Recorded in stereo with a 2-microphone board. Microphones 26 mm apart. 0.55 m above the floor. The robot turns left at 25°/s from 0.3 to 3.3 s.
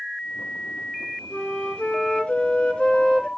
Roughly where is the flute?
Left.